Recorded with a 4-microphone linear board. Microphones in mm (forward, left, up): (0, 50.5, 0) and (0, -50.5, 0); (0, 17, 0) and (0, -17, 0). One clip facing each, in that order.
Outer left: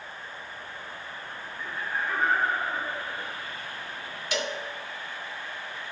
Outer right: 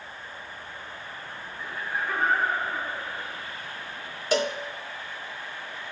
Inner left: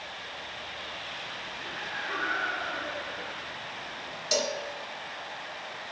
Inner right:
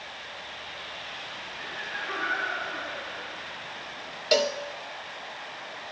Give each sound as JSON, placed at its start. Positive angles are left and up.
{"t": 1.6, "sound": "laughter", "side_deg": -15, "distance_m": 4.0}
{"t": 4.3, "sound": "a cowbell", "side_deg": -35, "distance_m": 0.6}